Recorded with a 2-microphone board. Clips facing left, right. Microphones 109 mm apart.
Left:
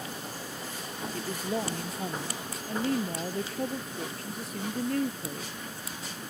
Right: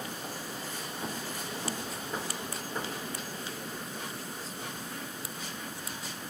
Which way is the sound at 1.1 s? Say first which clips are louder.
Left 7 dB; 65° left (ahead or behind).